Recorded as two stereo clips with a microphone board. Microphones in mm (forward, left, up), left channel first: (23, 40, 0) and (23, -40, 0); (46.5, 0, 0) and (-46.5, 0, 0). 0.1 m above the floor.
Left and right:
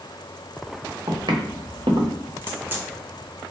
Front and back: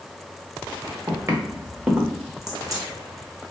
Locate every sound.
1.1 s footsteps: 120° right, 1.2 m; by 2.1 s 90° right, 0.9 m
2.4 s a crack: 140° right, 1.4 m